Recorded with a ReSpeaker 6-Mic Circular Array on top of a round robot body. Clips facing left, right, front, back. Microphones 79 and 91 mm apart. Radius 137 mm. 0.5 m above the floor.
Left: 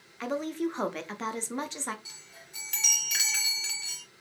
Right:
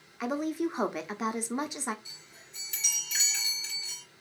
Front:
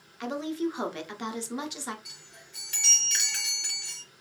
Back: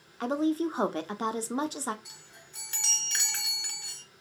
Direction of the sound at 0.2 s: 165° right.